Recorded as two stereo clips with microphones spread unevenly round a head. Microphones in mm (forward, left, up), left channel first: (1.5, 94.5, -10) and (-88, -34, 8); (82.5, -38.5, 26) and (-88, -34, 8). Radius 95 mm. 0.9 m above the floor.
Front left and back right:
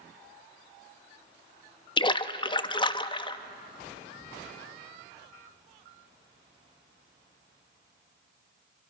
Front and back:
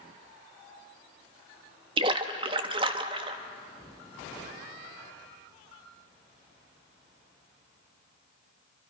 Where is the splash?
115° left, 0.7 m.